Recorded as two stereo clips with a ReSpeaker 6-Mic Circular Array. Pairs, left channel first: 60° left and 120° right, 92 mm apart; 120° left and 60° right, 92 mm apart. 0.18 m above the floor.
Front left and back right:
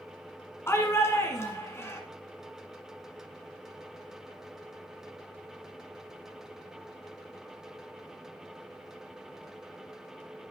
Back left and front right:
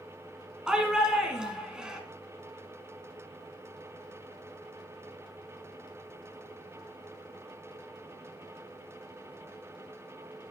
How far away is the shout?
About 1.5 m.